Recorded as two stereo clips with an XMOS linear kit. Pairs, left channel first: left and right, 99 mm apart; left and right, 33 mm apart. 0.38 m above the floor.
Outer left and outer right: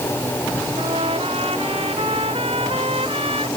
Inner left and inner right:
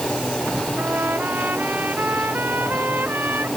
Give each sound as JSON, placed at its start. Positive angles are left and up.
{"t": 0.8, "sound": "a trumpet", "side_deg": -85}